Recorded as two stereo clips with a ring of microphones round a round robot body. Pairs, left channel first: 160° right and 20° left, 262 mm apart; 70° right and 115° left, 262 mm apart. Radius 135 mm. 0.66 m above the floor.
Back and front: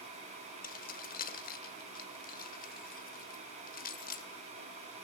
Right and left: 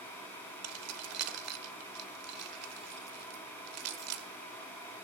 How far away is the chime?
I don't hear a chime.